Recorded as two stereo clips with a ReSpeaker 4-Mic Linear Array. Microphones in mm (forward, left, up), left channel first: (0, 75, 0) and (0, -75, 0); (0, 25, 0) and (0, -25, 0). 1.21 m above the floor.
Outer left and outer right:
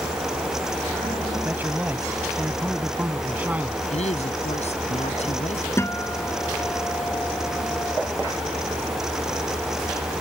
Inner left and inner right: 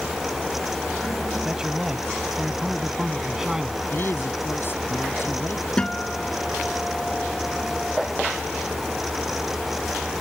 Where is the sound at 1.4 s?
10° right (ahead or behind).